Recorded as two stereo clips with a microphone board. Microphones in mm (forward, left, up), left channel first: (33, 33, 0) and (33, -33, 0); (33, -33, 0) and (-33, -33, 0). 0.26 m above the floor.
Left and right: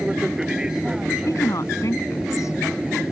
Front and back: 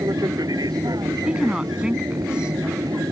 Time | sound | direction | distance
0.0 | an aircraft | 170° right | ?
1.2 | a woman speaking | 105° left | ?